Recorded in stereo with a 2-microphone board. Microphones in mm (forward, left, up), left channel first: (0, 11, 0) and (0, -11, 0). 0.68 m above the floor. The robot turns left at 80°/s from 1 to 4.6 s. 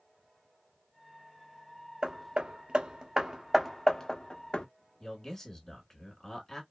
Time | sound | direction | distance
2.0 | hammering | 35° right (ahead or behind) | 0.5 m
5.0 | a man speaking | 15° left (ahead or behind) | 1.6 m